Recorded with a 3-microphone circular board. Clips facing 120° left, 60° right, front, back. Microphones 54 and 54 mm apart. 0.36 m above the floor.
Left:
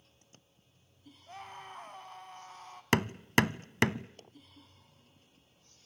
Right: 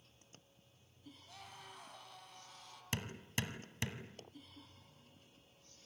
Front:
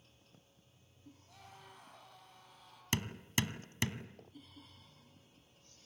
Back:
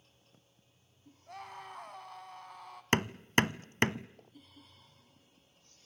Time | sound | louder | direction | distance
1.3 | a scream | left 10 dB, back 13 dB | 165° left | 3.5 m
2.9 | hammering | left 15 dB, back 9 dB | 140° left | 0.6 m